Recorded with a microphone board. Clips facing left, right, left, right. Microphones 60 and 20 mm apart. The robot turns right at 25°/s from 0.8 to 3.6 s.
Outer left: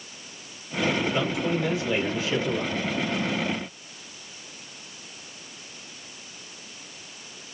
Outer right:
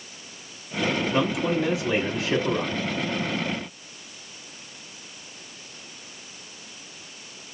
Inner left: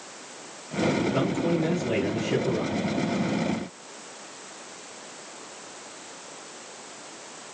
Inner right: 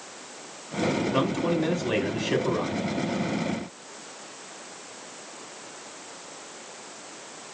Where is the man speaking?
115° right, 2.5 m; by 2.8 s 75° right, 2.5 m.